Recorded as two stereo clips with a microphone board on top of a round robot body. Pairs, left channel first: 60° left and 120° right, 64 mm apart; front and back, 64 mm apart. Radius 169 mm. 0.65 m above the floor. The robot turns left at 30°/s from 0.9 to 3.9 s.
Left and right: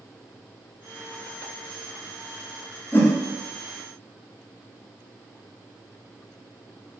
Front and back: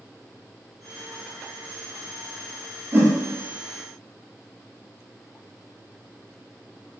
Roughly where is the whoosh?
Behind left.